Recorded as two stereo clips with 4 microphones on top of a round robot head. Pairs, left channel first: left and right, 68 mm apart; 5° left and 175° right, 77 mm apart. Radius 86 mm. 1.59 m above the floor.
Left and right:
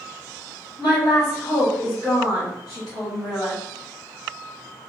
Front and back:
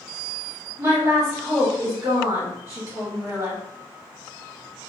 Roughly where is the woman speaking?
Behind left.